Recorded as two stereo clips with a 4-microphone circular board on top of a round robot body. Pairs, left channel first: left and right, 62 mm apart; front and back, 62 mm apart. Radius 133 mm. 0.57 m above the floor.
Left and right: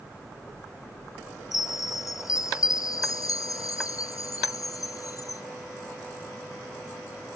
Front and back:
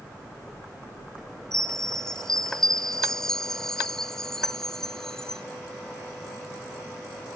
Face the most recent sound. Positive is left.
turn(degrees=80)